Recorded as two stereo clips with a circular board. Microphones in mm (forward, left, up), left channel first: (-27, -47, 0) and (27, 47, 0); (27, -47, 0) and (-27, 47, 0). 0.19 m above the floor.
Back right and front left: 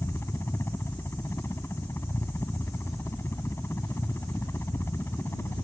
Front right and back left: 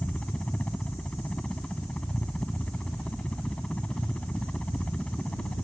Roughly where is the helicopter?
Behind right.